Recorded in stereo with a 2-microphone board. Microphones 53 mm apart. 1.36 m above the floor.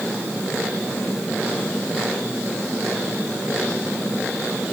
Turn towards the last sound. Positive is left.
No sound to turn to.